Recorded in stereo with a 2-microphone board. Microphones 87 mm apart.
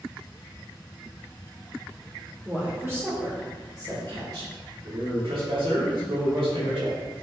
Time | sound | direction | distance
2.5 | a woman speaking | 20° right (ahead or behind) | 1.4 m
4.8 | a man speaking | 75° right (ahead or behind) | 2.0 m